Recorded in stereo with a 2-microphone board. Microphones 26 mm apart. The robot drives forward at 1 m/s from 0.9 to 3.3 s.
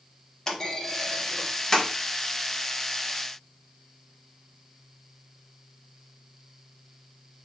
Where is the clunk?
20° left (ahead or behind), 1.0 m.